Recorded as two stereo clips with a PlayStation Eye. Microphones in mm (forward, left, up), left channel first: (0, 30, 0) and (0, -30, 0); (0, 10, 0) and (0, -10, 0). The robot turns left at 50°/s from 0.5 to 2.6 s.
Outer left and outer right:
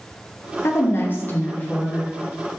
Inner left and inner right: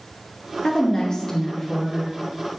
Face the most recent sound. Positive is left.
turn(degrees=-20)